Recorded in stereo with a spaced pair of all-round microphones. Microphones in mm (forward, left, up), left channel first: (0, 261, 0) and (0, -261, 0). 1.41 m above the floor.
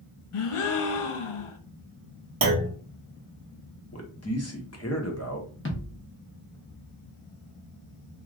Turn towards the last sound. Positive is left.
turn(degrees=25)  # may be behind; listen again after turning